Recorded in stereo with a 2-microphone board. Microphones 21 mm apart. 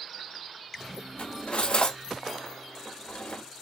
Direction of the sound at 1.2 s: 80° left.